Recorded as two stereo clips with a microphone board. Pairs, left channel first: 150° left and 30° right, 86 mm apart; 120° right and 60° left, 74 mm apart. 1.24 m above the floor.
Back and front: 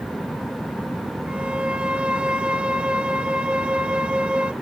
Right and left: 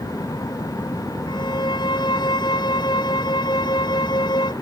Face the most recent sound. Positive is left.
turn(degrees=-110)